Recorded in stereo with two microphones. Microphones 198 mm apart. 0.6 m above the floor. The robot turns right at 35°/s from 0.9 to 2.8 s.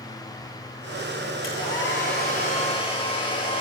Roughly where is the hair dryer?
Left.